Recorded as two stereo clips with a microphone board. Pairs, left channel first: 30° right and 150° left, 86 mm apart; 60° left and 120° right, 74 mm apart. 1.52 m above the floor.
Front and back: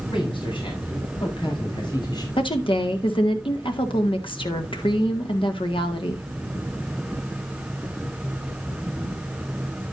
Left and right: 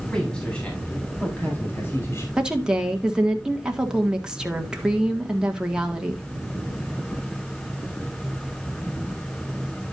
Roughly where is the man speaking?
Ahead.